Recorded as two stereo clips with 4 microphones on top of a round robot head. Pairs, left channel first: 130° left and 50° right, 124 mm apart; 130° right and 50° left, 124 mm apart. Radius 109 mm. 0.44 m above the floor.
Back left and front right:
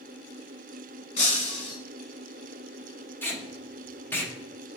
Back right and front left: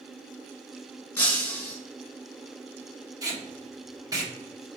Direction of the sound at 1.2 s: 155° left.